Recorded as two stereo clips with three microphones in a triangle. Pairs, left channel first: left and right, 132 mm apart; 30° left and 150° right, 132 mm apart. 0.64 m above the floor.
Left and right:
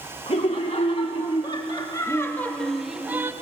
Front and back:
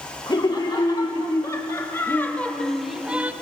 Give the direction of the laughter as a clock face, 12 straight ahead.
9 o'clock.